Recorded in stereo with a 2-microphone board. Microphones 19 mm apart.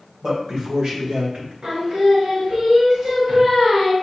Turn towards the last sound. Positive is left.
turn(degrees=-70)  # may be behind; listen again after turning